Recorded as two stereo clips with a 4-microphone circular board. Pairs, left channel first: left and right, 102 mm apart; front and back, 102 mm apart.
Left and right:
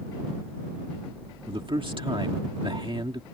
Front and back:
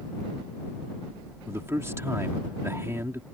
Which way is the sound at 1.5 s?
120° right.